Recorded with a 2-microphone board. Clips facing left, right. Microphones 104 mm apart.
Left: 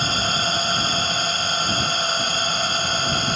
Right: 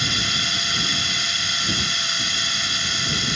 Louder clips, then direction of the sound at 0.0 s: Left 5 dB; 45° left (ahead or behind).